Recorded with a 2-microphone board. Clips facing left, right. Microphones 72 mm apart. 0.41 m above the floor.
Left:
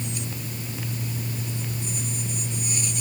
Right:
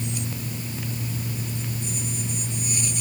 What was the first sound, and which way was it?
Only background noise.